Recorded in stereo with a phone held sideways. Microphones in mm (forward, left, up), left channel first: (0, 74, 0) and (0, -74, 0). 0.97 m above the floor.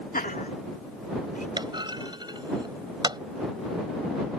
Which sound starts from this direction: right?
A clunk, at 1.6 s.